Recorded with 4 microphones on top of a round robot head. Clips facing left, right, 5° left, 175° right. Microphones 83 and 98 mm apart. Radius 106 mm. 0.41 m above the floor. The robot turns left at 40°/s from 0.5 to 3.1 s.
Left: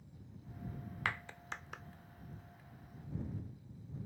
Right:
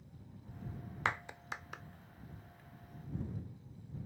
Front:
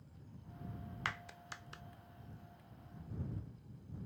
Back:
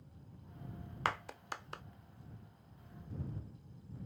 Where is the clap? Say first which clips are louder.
Right 3 dB, back 8 dB; 150° right; by 1.8 s straight behind.